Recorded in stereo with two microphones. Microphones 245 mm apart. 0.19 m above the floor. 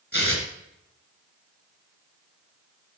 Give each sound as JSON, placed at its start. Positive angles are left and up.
{"t": 0.1, "sound": "tearing paper", "side_deg": 40, "distance_m": 3.0}